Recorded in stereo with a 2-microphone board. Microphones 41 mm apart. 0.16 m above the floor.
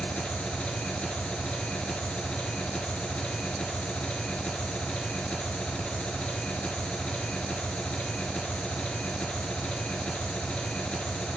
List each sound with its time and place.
0.0 s an engine running: 30° left (ahead or behind), 0.9 m